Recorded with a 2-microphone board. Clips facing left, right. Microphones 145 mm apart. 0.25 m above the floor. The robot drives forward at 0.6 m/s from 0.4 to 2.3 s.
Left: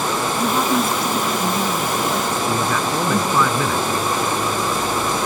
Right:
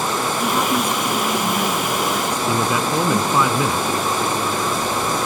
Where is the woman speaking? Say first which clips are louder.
Left 2 dB; 5° left (ahead or behind).